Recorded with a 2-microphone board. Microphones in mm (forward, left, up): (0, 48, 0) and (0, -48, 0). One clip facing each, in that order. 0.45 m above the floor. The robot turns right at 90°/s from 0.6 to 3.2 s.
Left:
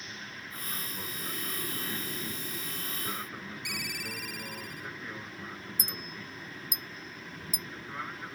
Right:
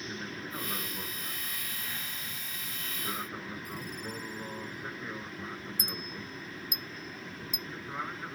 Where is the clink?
55° right (ahead or behind).